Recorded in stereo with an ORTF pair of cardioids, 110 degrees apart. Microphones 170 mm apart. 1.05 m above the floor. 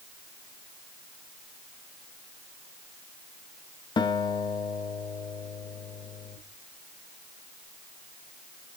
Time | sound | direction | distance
4.0 | a guitar | 30° left | 0.9 m